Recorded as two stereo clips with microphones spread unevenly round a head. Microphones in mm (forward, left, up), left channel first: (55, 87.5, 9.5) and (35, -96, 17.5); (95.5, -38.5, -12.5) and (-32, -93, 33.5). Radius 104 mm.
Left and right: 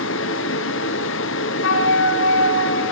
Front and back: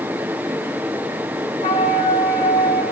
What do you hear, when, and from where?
0.0 s a fan: 120° left, 0.8 m
1.6 s a flute: 85° left, 10 m